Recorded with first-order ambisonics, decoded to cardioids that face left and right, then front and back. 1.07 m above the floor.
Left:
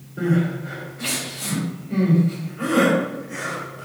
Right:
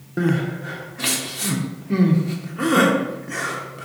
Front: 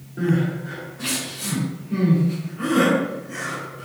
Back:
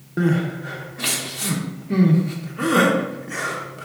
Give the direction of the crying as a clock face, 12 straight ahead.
4 o'clock.